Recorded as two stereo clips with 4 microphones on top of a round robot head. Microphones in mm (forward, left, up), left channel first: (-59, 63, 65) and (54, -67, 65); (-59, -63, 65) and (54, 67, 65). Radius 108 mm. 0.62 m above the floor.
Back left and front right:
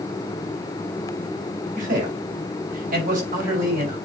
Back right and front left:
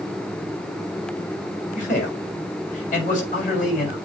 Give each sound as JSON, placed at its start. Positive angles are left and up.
{"t": 1.8, "sound": "a man speaking", "azimuth_deg": -90, "distance_m": 4.5}